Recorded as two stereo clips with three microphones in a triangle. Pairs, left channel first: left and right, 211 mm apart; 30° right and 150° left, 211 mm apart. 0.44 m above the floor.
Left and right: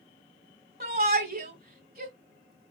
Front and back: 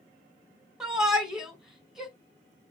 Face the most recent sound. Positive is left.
turn(degrees=-125)